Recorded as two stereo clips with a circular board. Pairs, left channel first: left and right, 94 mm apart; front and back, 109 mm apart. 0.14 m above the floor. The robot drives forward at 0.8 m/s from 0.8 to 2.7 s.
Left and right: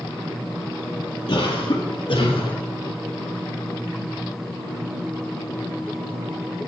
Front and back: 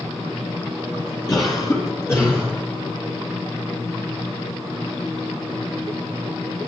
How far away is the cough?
About 3 m.